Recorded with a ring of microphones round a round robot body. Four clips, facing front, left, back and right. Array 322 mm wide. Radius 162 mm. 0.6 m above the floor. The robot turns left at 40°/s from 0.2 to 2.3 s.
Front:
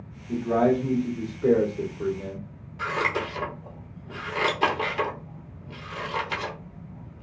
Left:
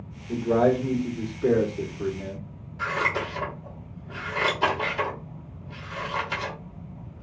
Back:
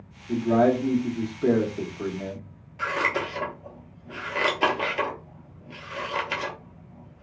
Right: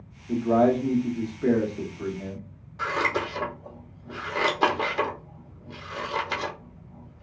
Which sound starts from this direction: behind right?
Scissors, at 2.8 s.